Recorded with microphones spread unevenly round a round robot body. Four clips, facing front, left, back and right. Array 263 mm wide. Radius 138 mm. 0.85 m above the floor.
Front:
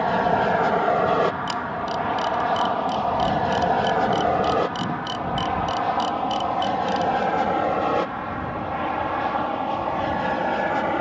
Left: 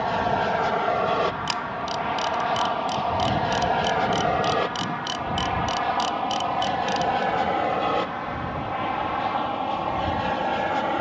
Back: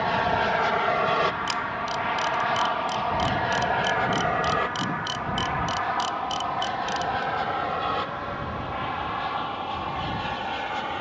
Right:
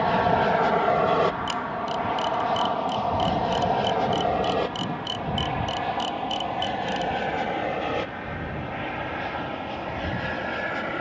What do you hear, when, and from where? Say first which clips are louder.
0.0 s an aircraft: right 2 dB, front 4 dB; 30° right; by 11.0 s 15° left
1.5 s a camera shutter: even, front 2 dB; 65° left